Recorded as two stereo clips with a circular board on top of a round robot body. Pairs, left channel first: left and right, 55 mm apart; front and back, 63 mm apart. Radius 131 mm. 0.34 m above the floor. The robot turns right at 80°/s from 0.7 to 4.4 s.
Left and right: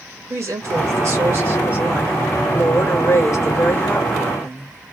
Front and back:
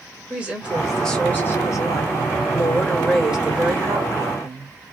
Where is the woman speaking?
110° right, 1.6 m; by 4.8 s 175° right, 1.6 m.